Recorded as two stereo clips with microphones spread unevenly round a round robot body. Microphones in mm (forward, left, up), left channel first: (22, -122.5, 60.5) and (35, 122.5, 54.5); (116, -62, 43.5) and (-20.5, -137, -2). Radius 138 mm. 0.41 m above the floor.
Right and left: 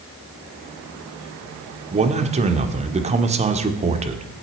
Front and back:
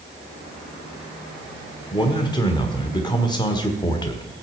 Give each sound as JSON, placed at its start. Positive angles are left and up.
{"t": 1.9, "sound": "a man speaking", "azimuth_deg": 100, "distance_m": 1.4}